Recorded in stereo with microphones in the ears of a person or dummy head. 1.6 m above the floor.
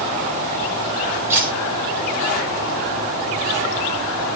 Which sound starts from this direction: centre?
Cutlery clinking, at 1.3 s.